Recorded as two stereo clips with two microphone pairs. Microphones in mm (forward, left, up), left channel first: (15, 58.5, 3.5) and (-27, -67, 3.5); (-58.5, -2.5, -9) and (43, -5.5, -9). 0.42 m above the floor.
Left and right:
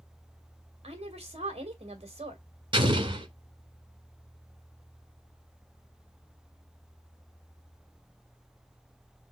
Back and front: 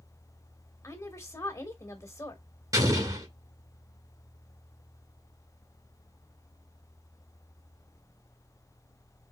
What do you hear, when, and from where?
0.8 s a woman speaking: 130° right, 2.5 m
2.7 s an explosion: 55° right, 1.7 m